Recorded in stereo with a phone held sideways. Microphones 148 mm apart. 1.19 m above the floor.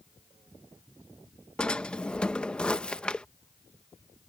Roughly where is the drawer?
Centre.